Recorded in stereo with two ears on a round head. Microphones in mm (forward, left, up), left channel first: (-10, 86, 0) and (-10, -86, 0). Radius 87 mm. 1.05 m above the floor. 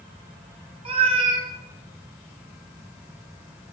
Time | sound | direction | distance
0.8 | a cat meowing | 30° right (ahead or behind) | 0.8 m